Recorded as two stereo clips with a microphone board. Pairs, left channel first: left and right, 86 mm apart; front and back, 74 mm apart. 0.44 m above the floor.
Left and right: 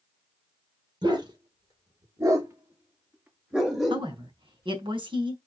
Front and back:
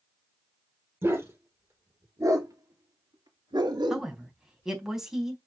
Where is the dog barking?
120° right, 4.5 m; by 4.1 s 175° left, 2.5 m.